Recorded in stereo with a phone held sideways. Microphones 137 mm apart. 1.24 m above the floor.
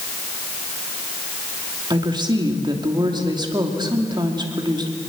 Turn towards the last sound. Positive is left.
turn(degrees=-30)  # may be behind; listen again after turning